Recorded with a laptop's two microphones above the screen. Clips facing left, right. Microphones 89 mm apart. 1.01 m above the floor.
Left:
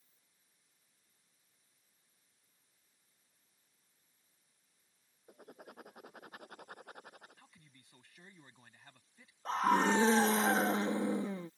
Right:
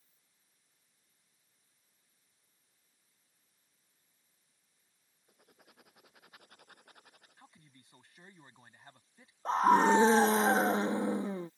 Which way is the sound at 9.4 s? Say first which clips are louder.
Right 5 dB; 25° right (ahead or behind).